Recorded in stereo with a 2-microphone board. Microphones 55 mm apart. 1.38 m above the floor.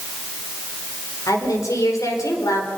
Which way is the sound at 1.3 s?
80° left.